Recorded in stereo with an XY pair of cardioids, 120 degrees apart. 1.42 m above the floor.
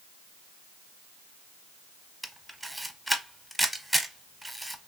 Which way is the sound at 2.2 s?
5° right.